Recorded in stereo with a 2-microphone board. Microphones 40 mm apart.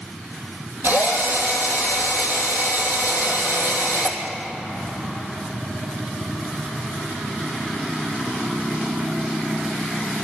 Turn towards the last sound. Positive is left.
turn(degrees=-60)  # may be behind; listen again after turning